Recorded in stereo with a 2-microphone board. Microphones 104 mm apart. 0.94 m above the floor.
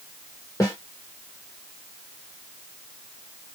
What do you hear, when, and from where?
0.6 s a snare drum: 35° left (ahead or behind), 1.3 m